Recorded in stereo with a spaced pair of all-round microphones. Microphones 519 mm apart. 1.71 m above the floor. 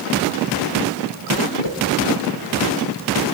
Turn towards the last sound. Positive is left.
turn(degrees=55)  # may be behind; listen again after turning